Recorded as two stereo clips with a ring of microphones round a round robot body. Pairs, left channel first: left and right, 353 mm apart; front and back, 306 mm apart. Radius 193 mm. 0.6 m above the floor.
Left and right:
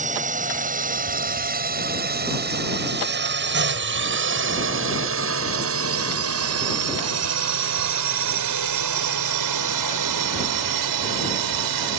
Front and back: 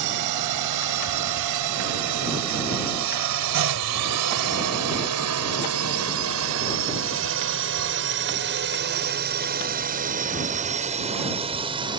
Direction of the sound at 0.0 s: 160° right.